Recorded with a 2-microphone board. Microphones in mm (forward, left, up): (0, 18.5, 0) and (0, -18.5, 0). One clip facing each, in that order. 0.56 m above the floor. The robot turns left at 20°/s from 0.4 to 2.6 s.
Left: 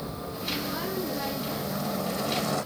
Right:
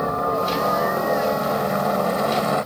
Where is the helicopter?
60° right (ahead or behind); by 2.7 s 30° right (ahead or behind).